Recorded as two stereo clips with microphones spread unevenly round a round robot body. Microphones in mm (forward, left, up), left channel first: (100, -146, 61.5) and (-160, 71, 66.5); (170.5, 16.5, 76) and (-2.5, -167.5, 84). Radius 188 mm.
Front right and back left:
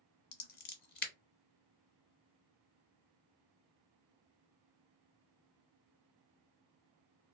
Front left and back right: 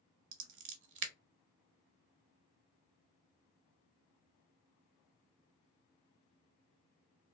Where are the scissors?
100° right, 0.7 m.